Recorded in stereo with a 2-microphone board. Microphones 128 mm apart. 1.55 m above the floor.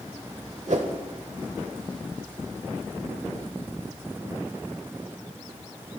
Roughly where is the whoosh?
Right.